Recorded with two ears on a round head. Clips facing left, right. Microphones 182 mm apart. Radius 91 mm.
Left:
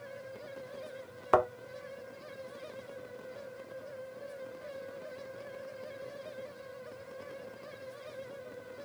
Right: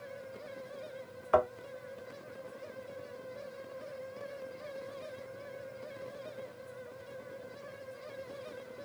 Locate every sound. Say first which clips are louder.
1.3 s a thud: even; 60° left (ahead or behind), 1.3 m